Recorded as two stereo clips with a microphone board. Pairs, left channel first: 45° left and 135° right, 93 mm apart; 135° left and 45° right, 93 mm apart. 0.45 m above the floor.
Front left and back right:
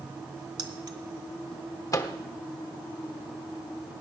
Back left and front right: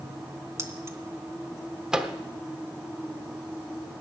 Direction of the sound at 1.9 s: 35° left.